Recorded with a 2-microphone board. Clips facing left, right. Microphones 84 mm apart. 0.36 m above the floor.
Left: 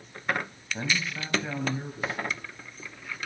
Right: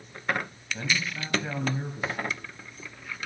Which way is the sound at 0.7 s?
30° left (ahead or behind).